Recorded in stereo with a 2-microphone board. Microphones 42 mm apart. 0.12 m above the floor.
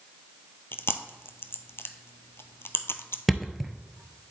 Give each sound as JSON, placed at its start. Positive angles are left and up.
{"t": 0.7, "sound": "chewing", "side_deg": 75, "distance_m": 0.6}
{"t": 3.3, "sound": "a thud", "side_deg": 0, "distance_m": 0.7}